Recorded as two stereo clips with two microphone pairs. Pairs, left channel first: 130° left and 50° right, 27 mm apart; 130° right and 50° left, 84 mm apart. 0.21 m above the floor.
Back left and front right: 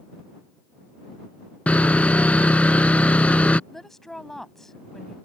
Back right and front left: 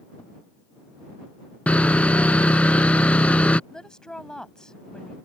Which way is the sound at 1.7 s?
155° left.